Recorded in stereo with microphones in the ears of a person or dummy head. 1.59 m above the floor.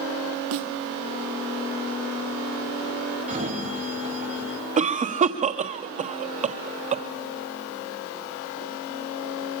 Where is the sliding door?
35° right (ahead or behind), 4.5 m.